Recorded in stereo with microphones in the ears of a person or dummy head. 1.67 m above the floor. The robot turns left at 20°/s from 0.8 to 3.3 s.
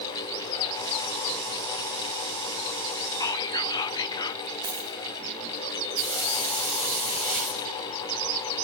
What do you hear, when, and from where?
3.2 s whispering: 20° left (ahead or behind), 1.0 m; by 4.4 s 25° left (ahead or behind), 1.0 m
4.6 s a dropped coin: 10° right (ahead or behind), 1.2 m
6.0 s a hiss: 5° left (ahead or behind), 8 m